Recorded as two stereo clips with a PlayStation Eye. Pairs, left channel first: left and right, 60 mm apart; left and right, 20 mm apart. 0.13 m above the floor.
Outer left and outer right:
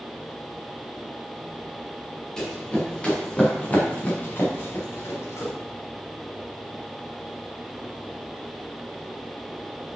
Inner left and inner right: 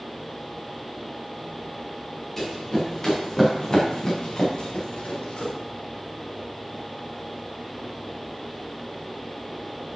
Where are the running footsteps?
15° left (ahead or behind), 4 m; by 5.5 s 50° left (ahead or behind), 2.5 m.